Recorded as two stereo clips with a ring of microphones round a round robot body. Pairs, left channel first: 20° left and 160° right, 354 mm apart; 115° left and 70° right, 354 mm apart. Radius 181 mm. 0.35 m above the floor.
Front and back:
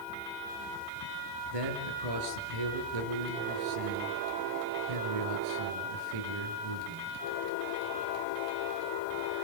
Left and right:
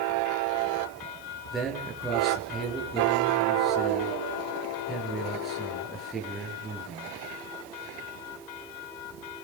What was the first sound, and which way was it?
A man speaking, 155° right.